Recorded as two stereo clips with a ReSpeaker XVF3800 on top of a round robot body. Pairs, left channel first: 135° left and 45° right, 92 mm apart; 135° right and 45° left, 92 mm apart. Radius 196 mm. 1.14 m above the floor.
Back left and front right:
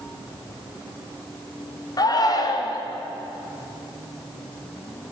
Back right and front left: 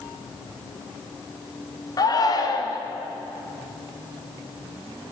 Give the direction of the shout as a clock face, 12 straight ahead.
6 o'clock.